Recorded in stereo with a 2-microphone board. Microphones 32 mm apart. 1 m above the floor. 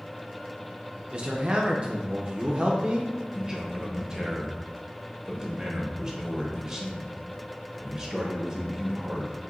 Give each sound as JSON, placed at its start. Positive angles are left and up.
{"t": 1.1, "sound": "a man speaking", "side_deg": -35, "distance_m": 0.6}
{"t": 3.3, "sound": "a man speaking", "side_deg": -15, "distance_m": 1.1}